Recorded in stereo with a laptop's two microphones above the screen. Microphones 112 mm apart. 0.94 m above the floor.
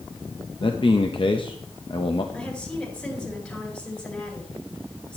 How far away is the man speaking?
About 0.7 m.